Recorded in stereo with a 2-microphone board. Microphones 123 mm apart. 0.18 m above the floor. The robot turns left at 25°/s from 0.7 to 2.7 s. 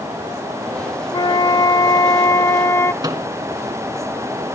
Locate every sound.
1.1 s a flute: 80° left, 0.6 m; by 2.9 s 40° left, 0.6 m
3.0 s a microwave: 35° right (ahead or behind), 1.6 m